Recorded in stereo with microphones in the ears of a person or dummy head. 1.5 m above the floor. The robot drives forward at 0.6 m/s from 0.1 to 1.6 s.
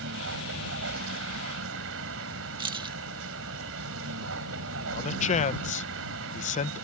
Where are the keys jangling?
25° right (ahead or behind).